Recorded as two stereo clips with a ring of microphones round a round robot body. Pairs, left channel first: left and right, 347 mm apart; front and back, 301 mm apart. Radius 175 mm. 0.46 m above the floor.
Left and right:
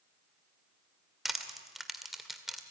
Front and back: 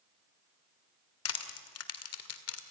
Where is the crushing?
Straight ahead, 1.9 m.